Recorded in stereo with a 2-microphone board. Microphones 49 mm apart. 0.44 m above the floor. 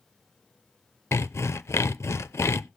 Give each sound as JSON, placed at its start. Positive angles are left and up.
{"t": 1.1, "sound": "sawing", "side_deg": 65, "distance_m": 0.6}